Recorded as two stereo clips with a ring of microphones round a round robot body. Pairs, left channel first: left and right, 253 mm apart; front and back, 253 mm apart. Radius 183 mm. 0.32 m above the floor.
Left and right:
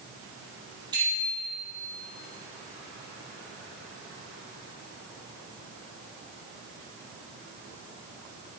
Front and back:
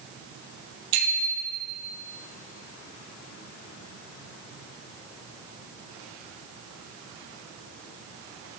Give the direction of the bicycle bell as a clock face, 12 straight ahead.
6 o'clock.